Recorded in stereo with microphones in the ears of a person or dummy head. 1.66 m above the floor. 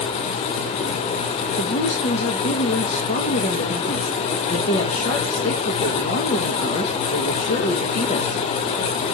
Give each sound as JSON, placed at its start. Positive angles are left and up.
{"t": 1.6, "sound": "a woman speaking", "side_deg": 45, "distance_m": 1.4}